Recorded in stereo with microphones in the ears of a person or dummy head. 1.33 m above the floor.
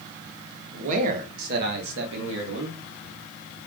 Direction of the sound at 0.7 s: 35° right (ahead or behind).